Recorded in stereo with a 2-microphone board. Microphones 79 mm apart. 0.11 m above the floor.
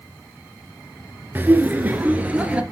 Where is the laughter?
25° right (ahead or behind), 1.7 m; by 2.6 s 15° right (ahead or behind), 2 m.